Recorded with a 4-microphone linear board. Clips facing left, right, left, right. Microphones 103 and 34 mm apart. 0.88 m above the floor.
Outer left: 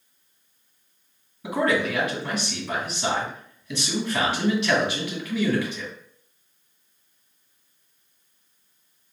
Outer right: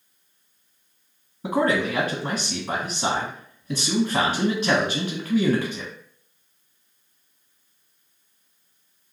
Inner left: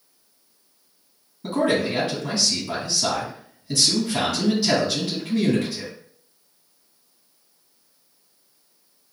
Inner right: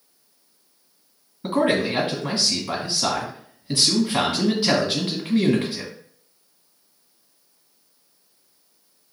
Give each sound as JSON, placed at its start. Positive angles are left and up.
{"t": 1.4, "sound": "a man speaking", "side_deg": -30, "distance_m": 1.4}